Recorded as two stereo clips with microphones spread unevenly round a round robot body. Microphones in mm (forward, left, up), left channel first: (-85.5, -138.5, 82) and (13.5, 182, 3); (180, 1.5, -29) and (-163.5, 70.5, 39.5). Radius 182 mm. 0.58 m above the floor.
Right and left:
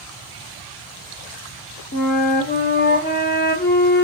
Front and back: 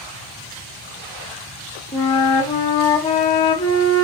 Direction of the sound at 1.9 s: 50° right.